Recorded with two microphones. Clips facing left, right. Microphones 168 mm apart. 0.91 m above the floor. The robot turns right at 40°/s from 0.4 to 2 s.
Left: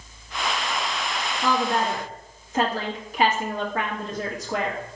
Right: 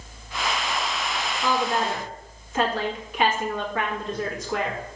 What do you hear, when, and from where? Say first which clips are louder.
1.4 s a woman speaking: left 1 dB; 60° left (ahead or behind), 1.6 m; by 4.8 s 40° left (ahead or behind), 1.6 m